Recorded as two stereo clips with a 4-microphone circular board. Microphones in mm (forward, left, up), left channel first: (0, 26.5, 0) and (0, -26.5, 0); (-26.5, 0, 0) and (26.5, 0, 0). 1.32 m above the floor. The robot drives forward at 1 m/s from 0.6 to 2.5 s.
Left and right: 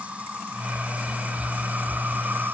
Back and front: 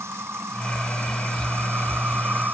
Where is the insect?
25° right; by 2.5 s 45° right.